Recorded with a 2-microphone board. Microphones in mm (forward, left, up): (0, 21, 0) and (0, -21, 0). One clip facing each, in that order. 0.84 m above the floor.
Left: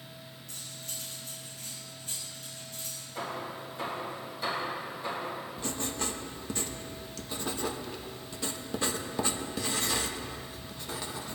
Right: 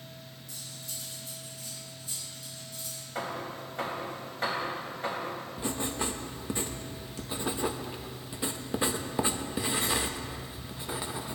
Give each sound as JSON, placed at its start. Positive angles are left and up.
{"t": 0.5, "sound": "cutlery clinking", "side_deg": 55, "distance_m": 3.5}
{"t": 3.1, "sound": "hammering", "side_deg": -65, "distance_m": 3.5}
{"t": 5.6, "sound": "writing", "side_deg": -20, "distance_m": 0.9}